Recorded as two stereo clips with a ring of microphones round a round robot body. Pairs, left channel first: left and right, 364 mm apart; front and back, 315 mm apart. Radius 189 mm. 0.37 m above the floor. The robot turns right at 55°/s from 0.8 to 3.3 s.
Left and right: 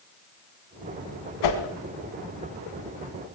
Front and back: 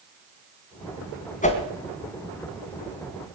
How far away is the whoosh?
About 2 m.